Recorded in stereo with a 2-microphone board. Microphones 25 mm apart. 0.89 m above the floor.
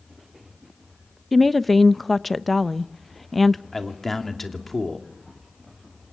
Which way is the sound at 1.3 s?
5° left (ahead or behind).